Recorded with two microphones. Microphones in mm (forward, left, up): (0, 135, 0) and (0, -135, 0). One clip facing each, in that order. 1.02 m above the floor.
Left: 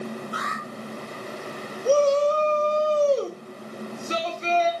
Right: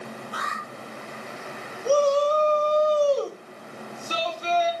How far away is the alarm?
About 7 m.